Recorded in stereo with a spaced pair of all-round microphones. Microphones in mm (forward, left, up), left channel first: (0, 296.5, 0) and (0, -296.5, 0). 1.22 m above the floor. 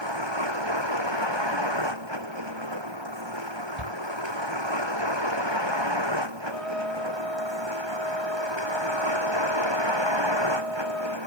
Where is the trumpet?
65° right (ahead or behind).